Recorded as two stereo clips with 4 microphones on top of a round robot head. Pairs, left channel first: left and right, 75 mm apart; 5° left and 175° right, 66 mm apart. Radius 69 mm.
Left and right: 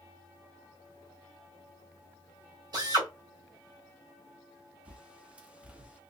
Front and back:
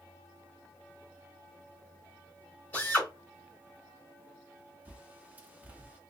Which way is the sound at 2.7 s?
65° right.